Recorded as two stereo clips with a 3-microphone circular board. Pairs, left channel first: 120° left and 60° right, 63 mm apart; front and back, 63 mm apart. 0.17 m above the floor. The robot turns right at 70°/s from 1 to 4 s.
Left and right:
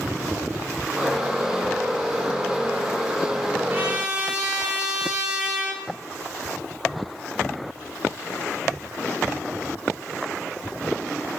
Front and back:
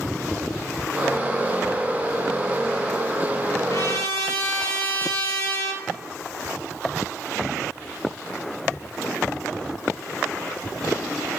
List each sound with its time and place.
3.7 s a trumpet: 10° right, 3.5 m; by 5.8 s 10° left, 3.5 m